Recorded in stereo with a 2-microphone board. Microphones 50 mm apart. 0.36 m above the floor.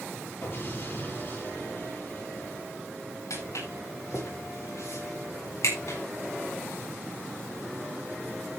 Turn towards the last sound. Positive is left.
turn(degrees=75)  # may be behind; listen again after turning